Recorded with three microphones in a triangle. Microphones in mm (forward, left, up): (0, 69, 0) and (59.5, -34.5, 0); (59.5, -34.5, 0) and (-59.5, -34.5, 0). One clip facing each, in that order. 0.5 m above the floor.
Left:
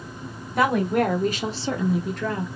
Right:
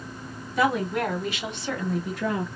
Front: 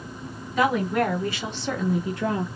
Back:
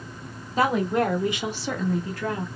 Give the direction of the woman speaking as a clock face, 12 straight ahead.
8 o'clock.